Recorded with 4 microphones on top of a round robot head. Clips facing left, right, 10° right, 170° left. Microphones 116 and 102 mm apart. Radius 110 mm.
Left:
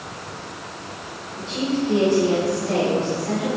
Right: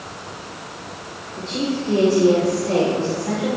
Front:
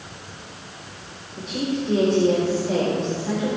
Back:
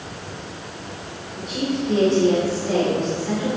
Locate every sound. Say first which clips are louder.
1.4 s a woman speaking: even, back 1 dB; 65° right, 5 m; by 3.6 s 80° right, 4.5 m